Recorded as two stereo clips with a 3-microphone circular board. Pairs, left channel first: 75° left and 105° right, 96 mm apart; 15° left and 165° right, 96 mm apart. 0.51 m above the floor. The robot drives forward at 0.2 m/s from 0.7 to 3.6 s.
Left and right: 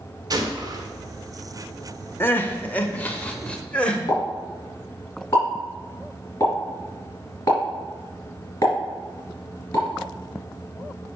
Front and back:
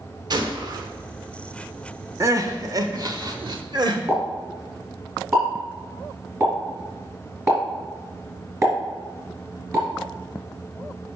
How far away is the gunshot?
About 0.9 m.